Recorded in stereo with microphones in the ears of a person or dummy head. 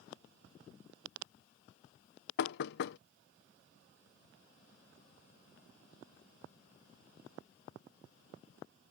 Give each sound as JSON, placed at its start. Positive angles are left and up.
{"t": 2.4, "sound": "knocking", "side_deg": 60}